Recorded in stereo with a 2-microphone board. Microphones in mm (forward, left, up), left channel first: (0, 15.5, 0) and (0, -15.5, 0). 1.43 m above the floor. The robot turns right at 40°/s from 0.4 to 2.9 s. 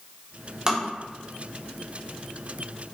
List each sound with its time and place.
0.7 s tapping: 30° right (ahead or behind), 0.6 m; by 0.8 s 20° right (ahead or behind), 0.6 m